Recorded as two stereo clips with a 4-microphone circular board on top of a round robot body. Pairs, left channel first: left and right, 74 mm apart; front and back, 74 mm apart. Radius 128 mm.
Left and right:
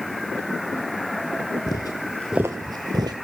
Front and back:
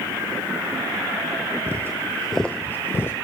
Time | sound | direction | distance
1.7 | footsteps | 120° left | 0.7 m